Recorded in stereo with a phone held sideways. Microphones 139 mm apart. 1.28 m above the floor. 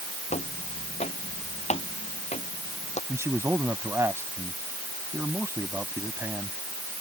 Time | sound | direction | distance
0.3 | footsteps | 55° left (ahead or behind) | ?
3.1 | a man speaking | 20° right (ahead or behind) | ?